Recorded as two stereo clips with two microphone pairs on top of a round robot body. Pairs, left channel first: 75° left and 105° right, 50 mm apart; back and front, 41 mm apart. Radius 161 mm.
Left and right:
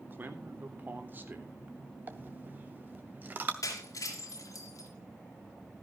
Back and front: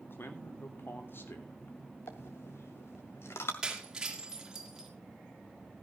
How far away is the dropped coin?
About 0.5 m.